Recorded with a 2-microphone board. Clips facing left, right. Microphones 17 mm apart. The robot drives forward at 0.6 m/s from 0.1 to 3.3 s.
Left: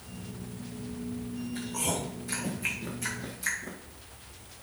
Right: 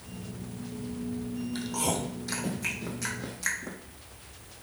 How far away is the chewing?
About 2.0 m.